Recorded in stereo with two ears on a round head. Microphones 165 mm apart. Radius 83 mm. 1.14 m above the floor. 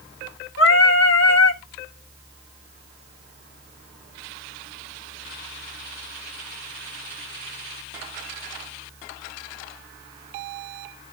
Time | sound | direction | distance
0.6 | singing | 70° left (ahead or behind) | 1.5 m